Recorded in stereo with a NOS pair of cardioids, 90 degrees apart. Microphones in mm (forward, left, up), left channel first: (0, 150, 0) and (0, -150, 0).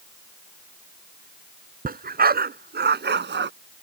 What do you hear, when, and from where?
1.9 s a dog barking: 30° right; by 3.5 s 35° right